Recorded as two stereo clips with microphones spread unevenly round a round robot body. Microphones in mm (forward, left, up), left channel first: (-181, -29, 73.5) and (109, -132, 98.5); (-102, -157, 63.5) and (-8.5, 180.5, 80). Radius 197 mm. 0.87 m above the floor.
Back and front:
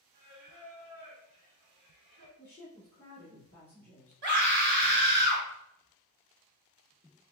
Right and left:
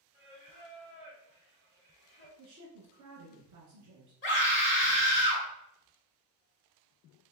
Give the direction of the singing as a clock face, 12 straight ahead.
1 o'clock.